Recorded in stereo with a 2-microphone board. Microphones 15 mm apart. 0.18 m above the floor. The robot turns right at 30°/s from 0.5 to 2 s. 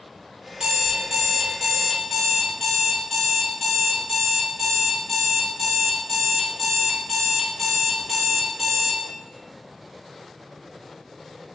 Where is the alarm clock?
50° right, 1.3 m; by 9.0 s 5° right, 1.3 m.